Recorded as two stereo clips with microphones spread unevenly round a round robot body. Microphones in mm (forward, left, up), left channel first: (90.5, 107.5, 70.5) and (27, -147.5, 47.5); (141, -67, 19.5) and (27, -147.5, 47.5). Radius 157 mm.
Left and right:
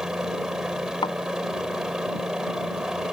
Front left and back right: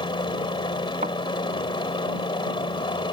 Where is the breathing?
No breathing in this recording.